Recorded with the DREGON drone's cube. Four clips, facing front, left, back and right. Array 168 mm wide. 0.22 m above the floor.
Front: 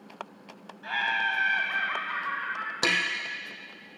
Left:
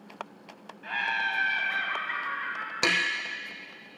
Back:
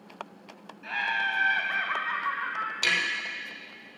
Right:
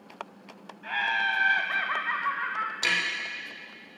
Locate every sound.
0.8 s laughter: 10° right, 1.3 m; by 2.7 s 125° right, 2.5 m
2.8 s tapping: 45° left, 2 m